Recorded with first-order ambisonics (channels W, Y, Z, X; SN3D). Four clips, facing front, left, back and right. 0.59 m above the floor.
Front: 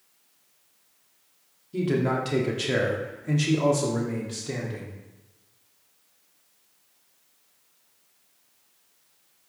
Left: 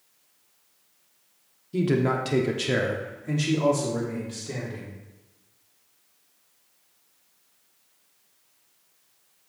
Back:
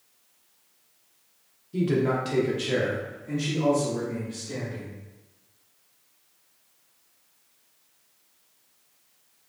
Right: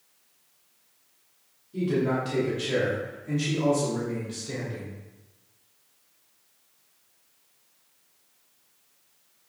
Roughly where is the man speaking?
Left.